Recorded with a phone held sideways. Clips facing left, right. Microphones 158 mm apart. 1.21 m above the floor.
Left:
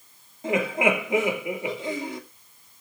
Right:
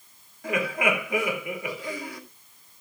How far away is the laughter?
About 2.5 m.